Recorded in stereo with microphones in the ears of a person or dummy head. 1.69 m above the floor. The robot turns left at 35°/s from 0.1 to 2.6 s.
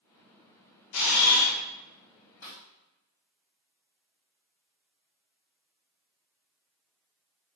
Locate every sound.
0.9 s a camera shutter: 85° left, 0.8 m; by 1.6 s 70° left (ahead or behind), 0.8 m
2.4 s a snare drum: 15° left (ahead or behind), 1.8 m; by 2.6 s 10° left (ahead or behind), 1.8 m